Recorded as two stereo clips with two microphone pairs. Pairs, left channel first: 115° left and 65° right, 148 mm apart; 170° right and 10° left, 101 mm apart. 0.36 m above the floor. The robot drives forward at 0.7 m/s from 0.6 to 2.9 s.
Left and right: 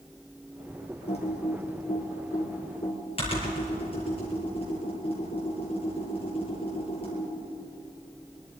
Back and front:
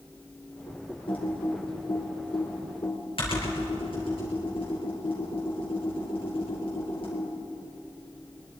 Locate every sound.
1.1 s typing on a keyboard: 160° left, 4.5 m; by 7.3 s 165° left, 5.5 m